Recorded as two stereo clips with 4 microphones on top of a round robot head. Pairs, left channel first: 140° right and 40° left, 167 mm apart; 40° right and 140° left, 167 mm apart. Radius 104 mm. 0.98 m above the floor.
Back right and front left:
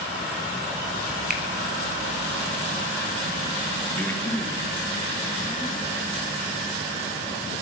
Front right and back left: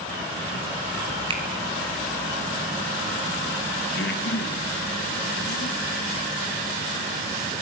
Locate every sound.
1.3 s a finger snap: 75° left, 4 m
4.0 s breathing: 60° right, 3 m